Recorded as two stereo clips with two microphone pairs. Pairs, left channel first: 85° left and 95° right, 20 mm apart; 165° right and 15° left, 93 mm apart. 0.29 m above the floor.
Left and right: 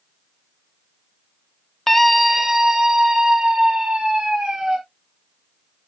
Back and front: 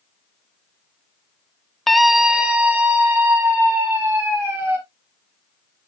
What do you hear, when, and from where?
1.9 s a scream: 115° left, 0.9 m; by 4.8 s 50° right, 3.5 m